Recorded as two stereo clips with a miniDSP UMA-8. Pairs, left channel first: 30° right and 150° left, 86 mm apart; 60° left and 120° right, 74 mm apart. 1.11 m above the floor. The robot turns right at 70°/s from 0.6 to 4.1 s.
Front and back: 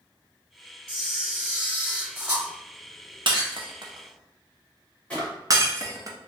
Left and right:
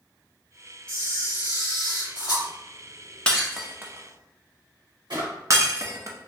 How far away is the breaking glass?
About 0.5 m.